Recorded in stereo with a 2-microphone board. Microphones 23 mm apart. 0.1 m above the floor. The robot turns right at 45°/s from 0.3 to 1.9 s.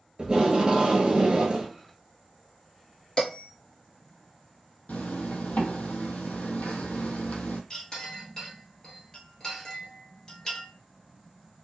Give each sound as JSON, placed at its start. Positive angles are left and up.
{"t": 0.2, "sound": "tape being pulled", "azimuth_deg": -115, "distance_m": 0.9}
{"t": 3.2, "sound": "a bell", "side_deg": 30, "distance_m": 1.6}
{"t": 4.9, "sound": "a zipper", "side_deg": 75, "distance_m": 0.8}
{"t": 7.7, "sound": "a clink", "side_deg": 25, "distance_m": 1.0}